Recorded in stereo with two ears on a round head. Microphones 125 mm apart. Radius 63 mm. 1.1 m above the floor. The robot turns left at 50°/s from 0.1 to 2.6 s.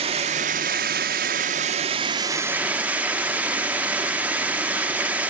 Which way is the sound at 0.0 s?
45° right.